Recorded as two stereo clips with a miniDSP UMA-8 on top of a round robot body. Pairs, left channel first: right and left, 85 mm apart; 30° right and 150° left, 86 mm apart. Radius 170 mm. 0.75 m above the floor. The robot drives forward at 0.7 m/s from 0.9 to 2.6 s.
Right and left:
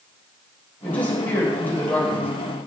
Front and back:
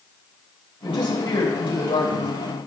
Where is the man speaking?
20° right, 4.5 m; by 2.3 s 25° right, 3.5 m.